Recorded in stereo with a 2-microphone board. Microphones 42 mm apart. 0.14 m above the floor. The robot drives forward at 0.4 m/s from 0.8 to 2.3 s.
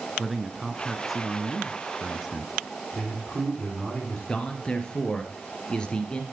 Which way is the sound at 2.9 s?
15° left (ahead or behind).